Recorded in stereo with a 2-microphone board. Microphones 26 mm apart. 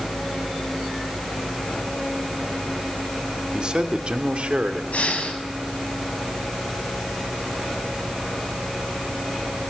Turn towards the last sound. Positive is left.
turn(degrees=60)  # may be behind; listen again after turning